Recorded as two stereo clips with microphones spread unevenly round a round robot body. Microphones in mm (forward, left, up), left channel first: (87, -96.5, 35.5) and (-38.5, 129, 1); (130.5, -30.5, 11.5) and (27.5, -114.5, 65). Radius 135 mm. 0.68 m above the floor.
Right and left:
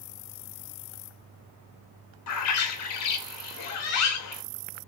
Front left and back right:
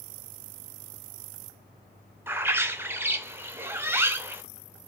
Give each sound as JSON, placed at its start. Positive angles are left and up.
{"t": 2.3, "sound": "a bird", "azimuth_deg": -45, "distance_m": 0.6}